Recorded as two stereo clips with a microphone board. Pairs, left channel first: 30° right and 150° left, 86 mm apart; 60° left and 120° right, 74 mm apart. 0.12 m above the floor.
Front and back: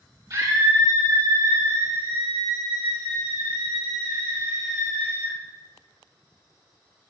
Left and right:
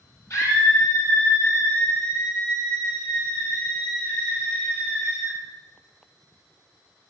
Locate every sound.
0.3 s a scream: 115° left, 3.5 m; by 5.3 s 135° left, 8.5 m